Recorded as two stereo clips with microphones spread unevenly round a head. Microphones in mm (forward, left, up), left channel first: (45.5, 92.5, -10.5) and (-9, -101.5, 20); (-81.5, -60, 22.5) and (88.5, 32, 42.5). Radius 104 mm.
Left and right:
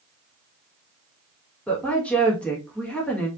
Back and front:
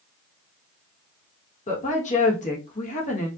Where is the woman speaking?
155° left, 1.5 m.